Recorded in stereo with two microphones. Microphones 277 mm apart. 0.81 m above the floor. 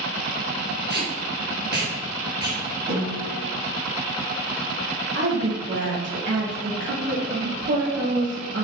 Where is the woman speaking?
40° right (ahead or behind), 1.0 m.